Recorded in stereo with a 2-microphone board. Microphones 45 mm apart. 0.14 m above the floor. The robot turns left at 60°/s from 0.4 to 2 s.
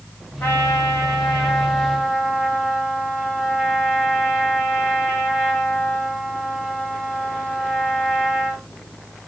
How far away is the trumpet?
About 10 m.